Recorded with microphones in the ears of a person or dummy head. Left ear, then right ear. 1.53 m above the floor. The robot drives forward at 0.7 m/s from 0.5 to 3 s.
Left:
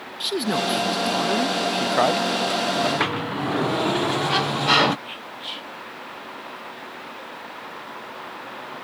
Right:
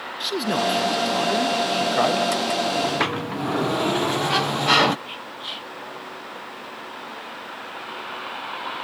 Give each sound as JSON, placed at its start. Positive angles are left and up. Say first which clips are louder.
{"t": 0.2, "sound": "a man speaking", "louder": "even", "side_deg": 5}
{"t": 2.8, "sound": "a sliding door", "louder": "left 1 dB", "side_deg": -10}
{"t": 5.1, "sound": "whispering", "louder": "right 1 dB", "side_deg": 0}